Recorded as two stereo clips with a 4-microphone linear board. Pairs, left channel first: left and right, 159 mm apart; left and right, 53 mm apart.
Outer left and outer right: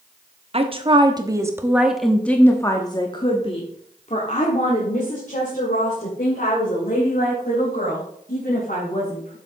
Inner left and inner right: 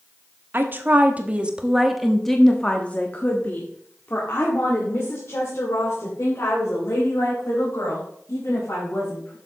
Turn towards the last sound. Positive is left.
turn(degrees=65)  # may be behind; listen again after turning